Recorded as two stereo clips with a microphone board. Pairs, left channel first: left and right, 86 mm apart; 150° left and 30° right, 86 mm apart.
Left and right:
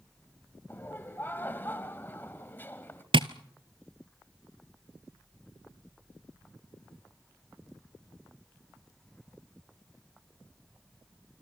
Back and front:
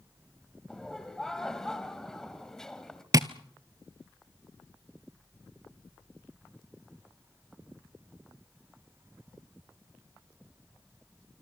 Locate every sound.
0.7 s laughter: 75° left, 1.3 m
3.1 s tapping: 80° right, 0.7 m